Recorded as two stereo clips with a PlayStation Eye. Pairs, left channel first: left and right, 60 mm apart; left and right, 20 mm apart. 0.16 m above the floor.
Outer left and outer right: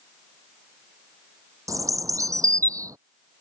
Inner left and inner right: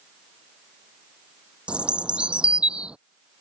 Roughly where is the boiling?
I don't hear boiling.